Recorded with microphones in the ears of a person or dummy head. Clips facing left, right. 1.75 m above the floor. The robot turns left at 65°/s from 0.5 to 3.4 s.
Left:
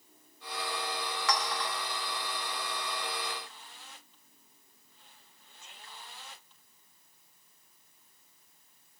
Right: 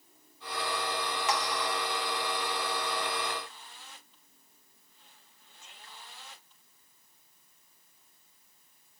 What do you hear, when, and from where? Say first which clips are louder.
1.3 s a clink: right 1 dB; 25° right (ahead or behind), 1.1 m; by 1.7 s centre (ahead or behind), 1.1 m